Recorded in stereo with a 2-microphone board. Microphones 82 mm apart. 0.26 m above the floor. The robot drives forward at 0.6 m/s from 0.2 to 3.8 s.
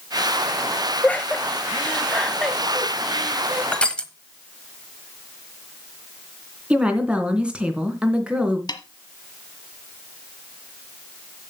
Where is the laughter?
15° left (ahead or behind), 0.9 m; by 3.6 s 10° left (ahead or behind), 1.9 m.